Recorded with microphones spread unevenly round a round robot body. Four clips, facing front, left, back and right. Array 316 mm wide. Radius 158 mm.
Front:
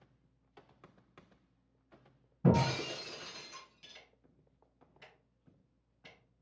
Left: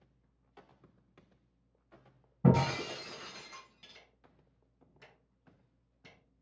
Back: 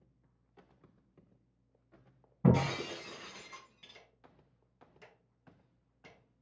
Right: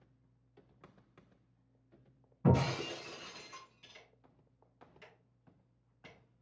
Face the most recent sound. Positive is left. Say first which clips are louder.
# even, back 2 dB
turn(degrees=175)